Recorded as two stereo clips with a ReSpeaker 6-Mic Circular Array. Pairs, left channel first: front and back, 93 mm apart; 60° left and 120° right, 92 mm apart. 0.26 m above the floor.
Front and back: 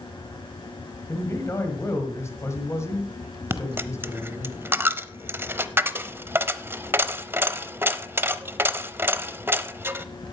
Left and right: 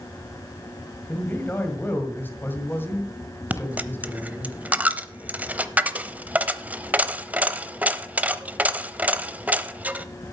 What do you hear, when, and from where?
1.1 s a man speaking: 15° left, 1.5 m
3.5 s a dropped coin: 165° right, 0.6 m